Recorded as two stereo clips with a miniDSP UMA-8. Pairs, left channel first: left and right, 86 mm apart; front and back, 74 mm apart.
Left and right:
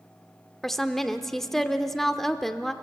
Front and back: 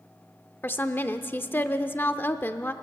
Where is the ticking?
I don't hear ticking.